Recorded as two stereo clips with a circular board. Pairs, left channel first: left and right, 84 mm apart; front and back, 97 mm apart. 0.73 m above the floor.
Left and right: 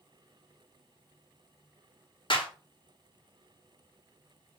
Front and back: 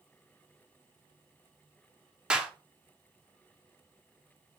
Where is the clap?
100° left, 1.5 m.